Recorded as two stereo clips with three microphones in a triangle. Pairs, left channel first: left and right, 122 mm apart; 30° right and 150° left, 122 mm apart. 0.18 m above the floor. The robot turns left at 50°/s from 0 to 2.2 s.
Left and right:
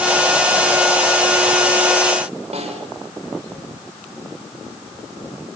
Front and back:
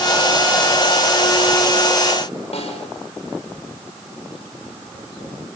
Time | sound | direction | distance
2.5 | a snare drum | 65° right | 7 m